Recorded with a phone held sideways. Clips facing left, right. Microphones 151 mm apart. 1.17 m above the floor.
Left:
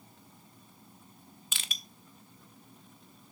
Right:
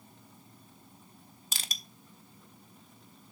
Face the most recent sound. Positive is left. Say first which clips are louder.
# right 1 dB
turn(degrees=-40)  # may be behind; listen again after turning